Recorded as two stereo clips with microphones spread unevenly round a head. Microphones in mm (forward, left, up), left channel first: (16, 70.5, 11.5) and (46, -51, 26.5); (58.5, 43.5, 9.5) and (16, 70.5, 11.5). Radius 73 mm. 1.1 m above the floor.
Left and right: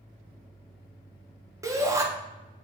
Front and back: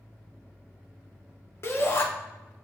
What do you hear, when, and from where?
1.6 s a shout: 10° right, 0.9 m